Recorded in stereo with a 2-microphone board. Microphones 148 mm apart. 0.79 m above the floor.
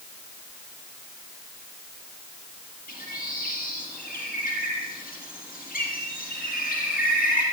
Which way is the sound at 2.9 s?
80° left.